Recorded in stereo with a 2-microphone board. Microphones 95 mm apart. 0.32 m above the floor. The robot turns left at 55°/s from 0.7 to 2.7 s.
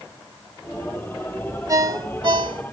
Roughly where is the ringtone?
Ahead right.